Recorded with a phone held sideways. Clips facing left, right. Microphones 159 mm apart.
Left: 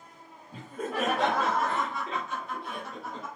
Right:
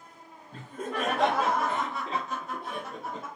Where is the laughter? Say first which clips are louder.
Left 1 dB; 10° left (ahead or behind), 1.2 m; by 3.3 s 50° right (ahead or behind), 1.1 m.